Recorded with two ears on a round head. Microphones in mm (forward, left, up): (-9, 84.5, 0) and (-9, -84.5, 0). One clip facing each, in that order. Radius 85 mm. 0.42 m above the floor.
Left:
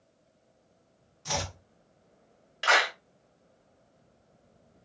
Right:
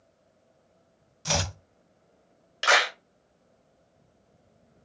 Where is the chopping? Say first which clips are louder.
Right 4 dB; 65° right (ahead or behind), 0.7 m.